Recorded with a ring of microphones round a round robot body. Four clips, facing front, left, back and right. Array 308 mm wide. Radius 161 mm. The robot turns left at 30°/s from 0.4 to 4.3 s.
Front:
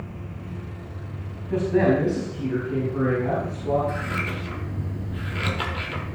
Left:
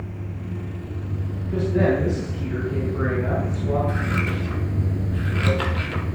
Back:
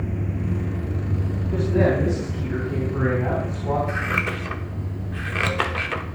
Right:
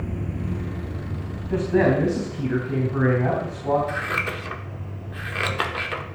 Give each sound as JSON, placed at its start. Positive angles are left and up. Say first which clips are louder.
{"t": 0.0, "sound": "running water", "louder": "right 4 dB, back 9 dB", "azimuth_deg": -155, "distance_m": 1.0}
{"t": 1.5, "sound": "a man speaking", "louder": "right 1 dB, front 1 dB", "azimuth_deg": -65, "distance_m": 4.0}
{"t": 3.9, "sound": "scissors", "louder": "left 1 dB, back 3 dB", "azimuth_deg": -140, "distance_m": 1.1}